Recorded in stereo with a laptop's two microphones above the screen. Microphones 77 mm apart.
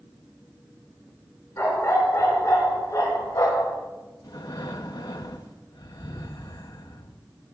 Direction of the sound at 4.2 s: 65° left (ahead or behind).